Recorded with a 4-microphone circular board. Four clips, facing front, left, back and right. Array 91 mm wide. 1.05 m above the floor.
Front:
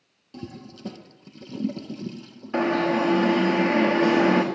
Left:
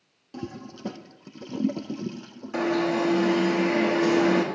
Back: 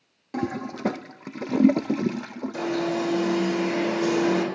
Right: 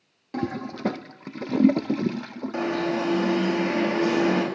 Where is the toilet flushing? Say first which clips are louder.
Right 8 dB, back 11 dB; 145° right, 0.5 m.